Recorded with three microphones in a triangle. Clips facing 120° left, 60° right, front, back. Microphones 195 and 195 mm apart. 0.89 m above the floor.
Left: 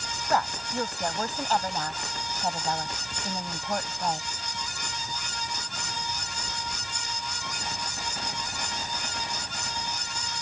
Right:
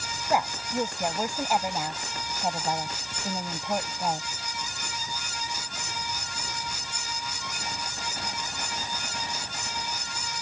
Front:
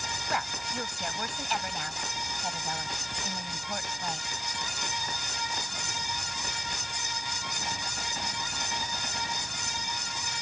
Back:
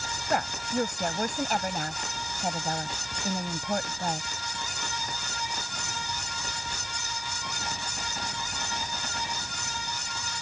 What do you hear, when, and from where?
0.3 s a woman speaking: 135° right